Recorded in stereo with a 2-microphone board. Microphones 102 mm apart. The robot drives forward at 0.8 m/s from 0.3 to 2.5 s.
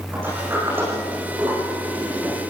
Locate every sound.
0.1 s a sliding door: 20° right (ahead or behind), 9 m; by 2.4 s 25° right (ahead or behind), 7.5 m